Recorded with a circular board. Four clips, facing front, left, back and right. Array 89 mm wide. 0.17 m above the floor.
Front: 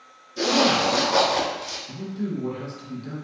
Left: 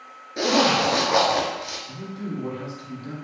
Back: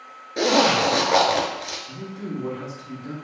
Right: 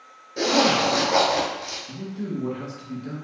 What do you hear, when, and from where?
0.4 s a zipper: 165° left, 0.7 m
1.9 s a man speaking: 160° right, 1.6 m